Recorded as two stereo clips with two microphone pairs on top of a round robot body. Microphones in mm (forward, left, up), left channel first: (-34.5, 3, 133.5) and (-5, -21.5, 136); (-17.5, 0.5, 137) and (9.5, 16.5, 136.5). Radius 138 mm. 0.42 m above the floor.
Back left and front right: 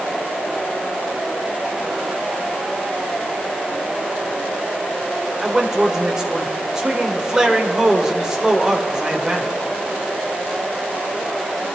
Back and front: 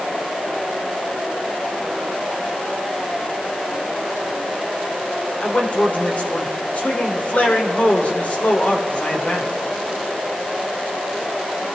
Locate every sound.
5.4 s a man speaking: 110° right, 2.5 m